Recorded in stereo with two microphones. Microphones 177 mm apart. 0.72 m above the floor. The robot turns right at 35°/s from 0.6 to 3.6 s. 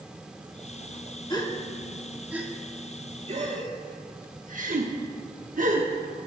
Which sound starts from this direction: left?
A gasp, at 1.3 s.